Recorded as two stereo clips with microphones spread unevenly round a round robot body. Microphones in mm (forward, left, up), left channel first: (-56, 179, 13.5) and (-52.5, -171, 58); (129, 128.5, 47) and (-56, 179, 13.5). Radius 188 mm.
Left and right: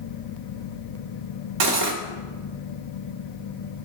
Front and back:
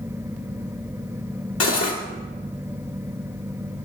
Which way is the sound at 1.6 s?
45° right.